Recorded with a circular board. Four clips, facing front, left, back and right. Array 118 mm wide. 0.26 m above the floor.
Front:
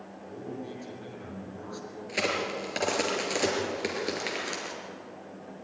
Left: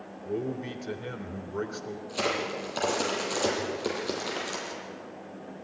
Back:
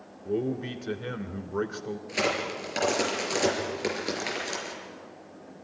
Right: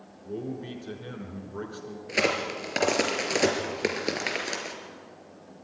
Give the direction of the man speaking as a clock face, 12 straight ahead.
7 o'clock.